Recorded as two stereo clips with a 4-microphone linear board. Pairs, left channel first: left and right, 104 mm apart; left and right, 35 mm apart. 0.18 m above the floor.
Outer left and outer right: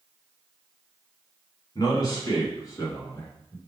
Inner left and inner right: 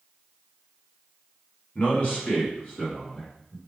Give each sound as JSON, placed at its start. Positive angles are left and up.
{"t": 1.8, "sound": "a man speaking", "side_deg": 40, "distance_m": 2.0}